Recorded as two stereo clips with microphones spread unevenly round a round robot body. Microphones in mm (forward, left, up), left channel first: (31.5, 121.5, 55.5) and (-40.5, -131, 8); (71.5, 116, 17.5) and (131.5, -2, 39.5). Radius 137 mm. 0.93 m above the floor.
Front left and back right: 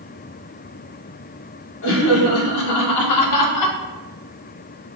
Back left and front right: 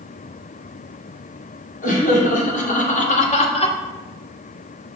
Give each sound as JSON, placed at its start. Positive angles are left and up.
{"t": 1.8, "sound": "laughter", "azimuth_deg": 120, "distance_m": 2.5}